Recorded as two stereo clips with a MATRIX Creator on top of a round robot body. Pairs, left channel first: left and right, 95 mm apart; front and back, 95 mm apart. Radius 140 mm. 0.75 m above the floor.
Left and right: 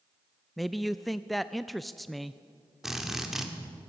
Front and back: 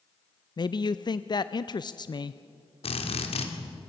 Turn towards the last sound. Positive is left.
turn(degrees=-5)